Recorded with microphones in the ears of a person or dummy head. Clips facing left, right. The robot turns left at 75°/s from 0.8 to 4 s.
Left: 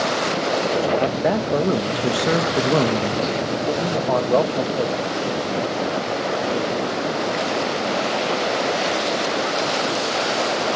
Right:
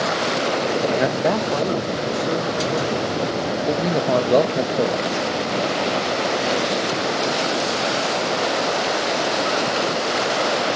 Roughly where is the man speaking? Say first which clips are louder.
Even; behind.